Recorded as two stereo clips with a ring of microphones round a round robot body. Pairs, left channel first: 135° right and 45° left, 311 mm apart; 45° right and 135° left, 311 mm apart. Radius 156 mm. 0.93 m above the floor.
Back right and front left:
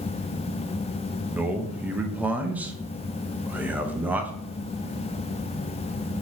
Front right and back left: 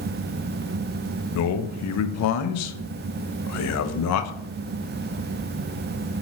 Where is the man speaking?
40° right, 0.5 m.